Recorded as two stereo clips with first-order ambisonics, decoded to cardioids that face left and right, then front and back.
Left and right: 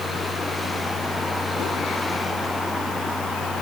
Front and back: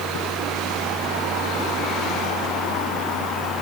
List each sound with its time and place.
Only background noise.